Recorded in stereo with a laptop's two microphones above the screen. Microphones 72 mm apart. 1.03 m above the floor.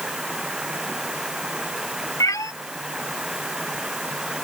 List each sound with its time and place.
0.0 s running water: 10° right (ahead or behind)
2.2 s a cat meowing: 50° left (ahead or behind)